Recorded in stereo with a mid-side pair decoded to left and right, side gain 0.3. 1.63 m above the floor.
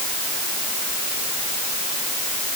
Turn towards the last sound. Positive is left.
No sound to turn to.